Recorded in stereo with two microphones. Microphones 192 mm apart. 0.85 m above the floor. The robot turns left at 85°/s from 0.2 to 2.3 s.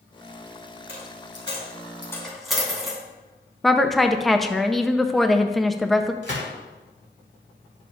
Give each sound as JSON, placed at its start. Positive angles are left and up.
{"t": 0.9, "sound": "a dropped coin", "side_deg": 60, "distance_m": 2.5}
{"t": 3.6, "sound": "a woman speaking", "side_deg": 0, "distance_m": 0.6}
{"t": 6.2, "sound": "a gunshot", "side_deg": 70, "distance_m": 2.5}